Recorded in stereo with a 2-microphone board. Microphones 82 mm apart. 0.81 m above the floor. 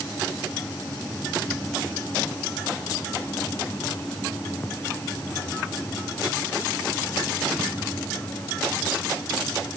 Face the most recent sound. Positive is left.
No sound to turn to.